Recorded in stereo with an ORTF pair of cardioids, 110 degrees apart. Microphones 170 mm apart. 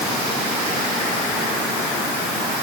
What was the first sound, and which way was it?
Only background noise.